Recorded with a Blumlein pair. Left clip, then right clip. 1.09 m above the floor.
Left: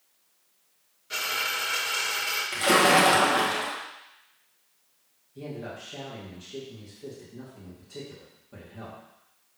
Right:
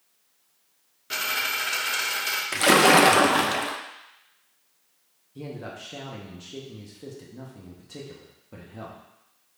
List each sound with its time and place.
1.1 s a dropped coin: 60° right, 1.1 m
2.5 s a splash: 70° right, 0.5 m
5.3 s a man speaking: 20° right, 1.1 m